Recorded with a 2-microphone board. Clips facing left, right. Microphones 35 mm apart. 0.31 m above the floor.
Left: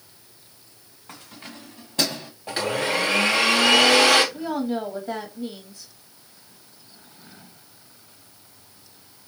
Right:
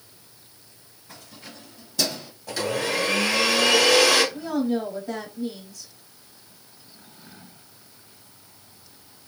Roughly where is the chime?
No chime in this recording.